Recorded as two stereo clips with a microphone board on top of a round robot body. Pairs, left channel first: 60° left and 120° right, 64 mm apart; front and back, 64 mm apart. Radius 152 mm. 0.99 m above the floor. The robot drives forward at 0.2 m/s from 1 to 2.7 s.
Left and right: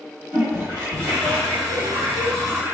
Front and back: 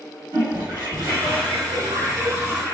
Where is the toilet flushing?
175° right, 1.6 m.